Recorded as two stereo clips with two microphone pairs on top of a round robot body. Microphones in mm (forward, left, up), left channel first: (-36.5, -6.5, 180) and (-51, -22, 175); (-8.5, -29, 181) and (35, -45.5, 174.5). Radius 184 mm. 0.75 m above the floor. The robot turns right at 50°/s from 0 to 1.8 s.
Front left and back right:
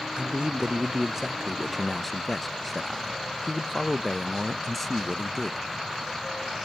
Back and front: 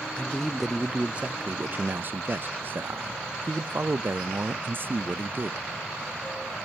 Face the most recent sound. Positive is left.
turn(degrees=-45)